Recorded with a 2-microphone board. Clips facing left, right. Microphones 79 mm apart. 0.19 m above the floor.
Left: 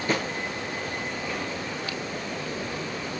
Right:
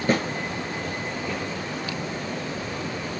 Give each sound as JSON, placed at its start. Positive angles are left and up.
{"t": 0.1, "sound": "a snare drum", "side_deg": -45, "distance_m": 3.5}